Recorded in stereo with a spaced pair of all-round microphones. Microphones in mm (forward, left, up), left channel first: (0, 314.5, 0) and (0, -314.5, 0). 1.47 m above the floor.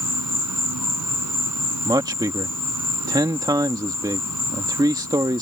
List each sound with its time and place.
0.0 s an insect: 30° right (ahead or behind)
1.9 s a man speaking: 5° right (ahead or behind)